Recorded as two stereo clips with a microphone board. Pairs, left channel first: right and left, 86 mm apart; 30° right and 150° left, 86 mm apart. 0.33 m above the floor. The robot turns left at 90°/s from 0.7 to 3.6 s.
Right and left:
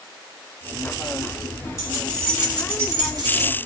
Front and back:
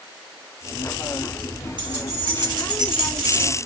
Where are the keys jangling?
130° right, 1.1 m; by 3.5 s 75° left, 1.1 m.